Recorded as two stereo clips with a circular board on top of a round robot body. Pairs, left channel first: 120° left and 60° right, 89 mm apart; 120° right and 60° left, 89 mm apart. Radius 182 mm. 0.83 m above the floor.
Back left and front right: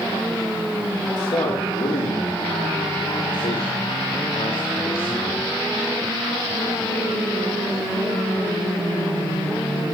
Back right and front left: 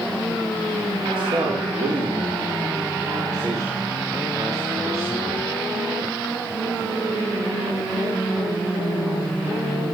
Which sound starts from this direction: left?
A man speaking, at 1.2 s.